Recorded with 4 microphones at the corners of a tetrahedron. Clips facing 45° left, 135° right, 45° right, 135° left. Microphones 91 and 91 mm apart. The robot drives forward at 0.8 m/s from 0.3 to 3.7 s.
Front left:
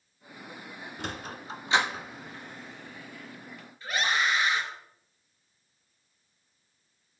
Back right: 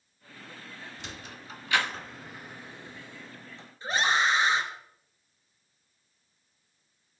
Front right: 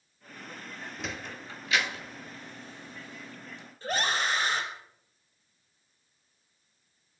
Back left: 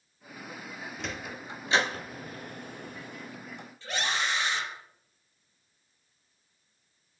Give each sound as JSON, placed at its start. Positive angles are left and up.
{"t": 1.0, "sound": "a sliding door", "azimuth_deg": 40, "distance_m": 0.8}
{"t": 3.8, "sound": "a scream", "azimuth_deg": -80, "distance_m": 2.0}